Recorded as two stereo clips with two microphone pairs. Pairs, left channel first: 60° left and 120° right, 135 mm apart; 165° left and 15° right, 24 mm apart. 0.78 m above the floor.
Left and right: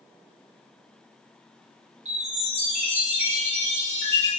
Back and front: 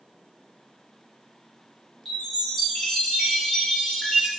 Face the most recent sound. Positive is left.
turn(degrees=-125)